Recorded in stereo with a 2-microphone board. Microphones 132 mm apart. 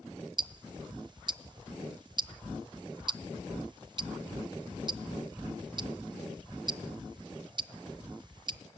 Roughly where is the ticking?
Right.